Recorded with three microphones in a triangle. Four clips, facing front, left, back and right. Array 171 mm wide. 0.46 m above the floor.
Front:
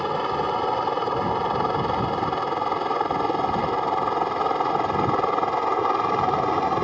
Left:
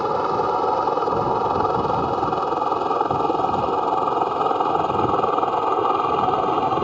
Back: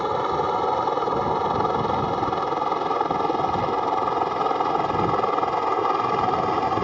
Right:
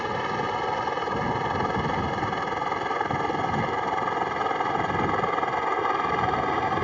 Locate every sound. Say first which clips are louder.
0.0 s a helicopter: left 7 dB, back 1 dB; 100° left; by 6.8 s 85° left